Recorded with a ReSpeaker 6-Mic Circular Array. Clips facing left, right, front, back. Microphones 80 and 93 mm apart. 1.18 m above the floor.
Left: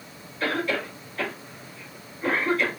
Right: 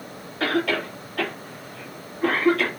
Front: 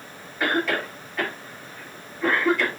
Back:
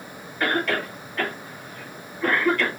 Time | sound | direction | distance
0.4 | a cough | 85° right | 2.5 m